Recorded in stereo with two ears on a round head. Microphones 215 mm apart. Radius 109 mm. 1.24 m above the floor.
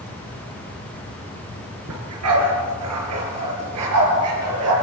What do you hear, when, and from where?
1.9 s a dog barking: 80° right, 4.5 m